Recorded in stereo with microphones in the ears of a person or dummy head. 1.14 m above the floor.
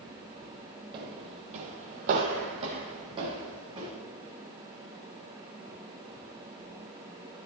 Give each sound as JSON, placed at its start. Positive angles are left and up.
{"t": 0.9, "sound": "footsteps", "side_deg": -25, "distance_m": 1.4}